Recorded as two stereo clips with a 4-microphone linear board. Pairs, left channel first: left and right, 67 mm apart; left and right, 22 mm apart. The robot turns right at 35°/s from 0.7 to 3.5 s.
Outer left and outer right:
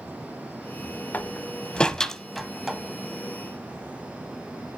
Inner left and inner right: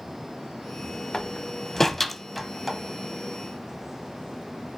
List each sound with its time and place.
1.1 s a door slam: 25° left (ahead or behind), 1.1 m; by 2.8 s 5° right (ahead or behind), 1.1 m